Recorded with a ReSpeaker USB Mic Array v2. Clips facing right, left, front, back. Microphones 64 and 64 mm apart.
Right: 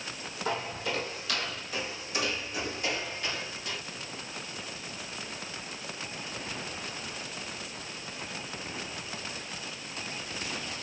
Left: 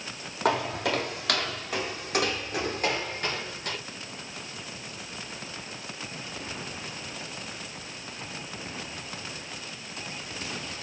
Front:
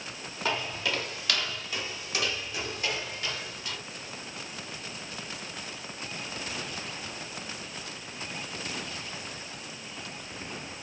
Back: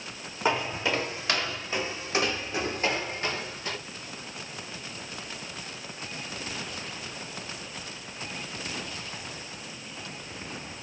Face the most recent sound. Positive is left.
turn(degrees=130)